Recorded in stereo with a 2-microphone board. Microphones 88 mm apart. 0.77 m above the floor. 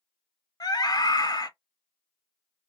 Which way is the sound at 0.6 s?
50° left (ahead or behind).